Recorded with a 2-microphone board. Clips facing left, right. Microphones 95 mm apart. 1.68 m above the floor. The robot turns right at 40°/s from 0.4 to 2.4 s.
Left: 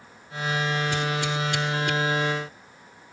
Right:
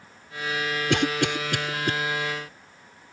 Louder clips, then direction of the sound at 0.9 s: Right 3 dB; 75° right (ahead or behind).